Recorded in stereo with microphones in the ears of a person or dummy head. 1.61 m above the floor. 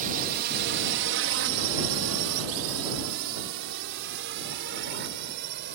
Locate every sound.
0.0 s a drone: 50° right (ahead or behind); by 5.8 s 55° right (ahead or behind)